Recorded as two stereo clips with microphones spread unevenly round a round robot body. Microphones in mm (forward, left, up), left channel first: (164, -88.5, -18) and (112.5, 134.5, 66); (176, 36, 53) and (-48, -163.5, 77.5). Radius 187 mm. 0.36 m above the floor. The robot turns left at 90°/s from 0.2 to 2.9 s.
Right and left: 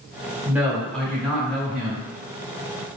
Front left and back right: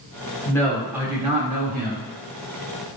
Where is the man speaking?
10° right, 1.2 m; by 2.0 s 150° right, 1.2 m.